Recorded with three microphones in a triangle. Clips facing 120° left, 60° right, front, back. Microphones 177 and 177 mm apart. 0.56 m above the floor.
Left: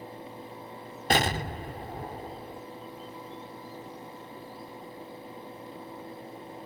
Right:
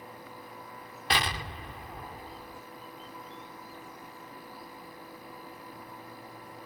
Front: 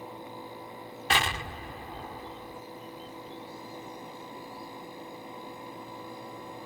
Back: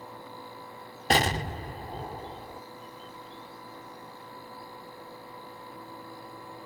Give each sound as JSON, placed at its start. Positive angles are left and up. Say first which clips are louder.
{"t": 1.1, "sound": "an explosion", "louder": "left 6 dB, back 6 dB", "azimuth_deg": 145}